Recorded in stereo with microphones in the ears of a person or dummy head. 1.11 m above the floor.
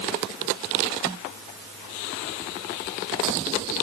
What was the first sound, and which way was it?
Only background noise.